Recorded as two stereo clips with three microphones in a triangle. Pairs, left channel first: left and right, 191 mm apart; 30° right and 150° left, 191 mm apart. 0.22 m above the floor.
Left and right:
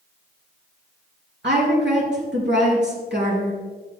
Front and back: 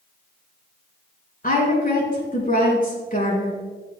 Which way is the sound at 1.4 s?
75° right.